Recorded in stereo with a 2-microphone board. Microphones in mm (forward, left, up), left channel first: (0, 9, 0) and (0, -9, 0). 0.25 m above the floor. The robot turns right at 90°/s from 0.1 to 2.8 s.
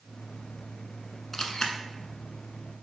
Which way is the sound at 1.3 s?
25° left (ahead or behind).